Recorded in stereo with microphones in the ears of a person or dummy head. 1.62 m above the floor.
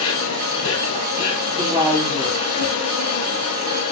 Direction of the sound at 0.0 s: 75° left (ahead or behind).